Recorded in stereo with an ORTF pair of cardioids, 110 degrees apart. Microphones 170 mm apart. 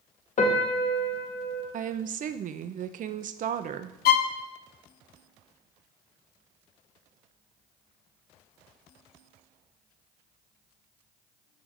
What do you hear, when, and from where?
0.4 s a piano: 45° left, 1.8 m
1.7 s a woman speaking: 50° right, 0.8 m
4.0 s a violin: 70° left, 0.7 m